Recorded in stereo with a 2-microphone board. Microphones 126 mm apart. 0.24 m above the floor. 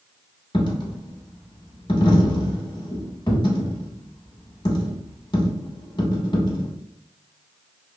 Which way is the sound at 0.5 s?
40° left (ahead or behind).